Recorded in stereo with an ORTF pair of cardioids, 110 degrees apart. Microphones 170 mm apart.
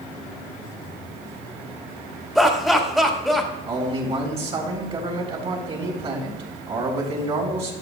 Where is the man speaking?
35° right, 4 m.